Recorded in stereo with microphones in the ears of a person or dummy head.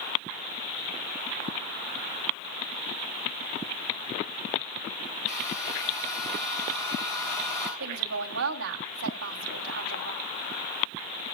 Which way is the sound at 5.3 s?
45° left (ahead or behind).